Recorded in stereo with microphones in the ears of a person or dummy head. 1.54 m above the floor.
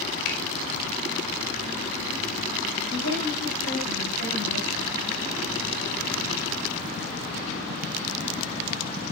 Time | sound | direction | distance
0.2 | a finger snap | 70° left (ahead or behind) | 5 m
2.9 | a woman speaking | 85° left | 10 m